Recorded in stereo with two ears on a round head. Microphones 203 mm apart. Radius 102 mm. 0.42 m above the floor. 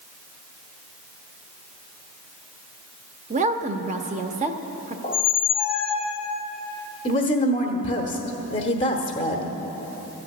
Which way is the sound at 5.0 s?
25° left (ahead or behind).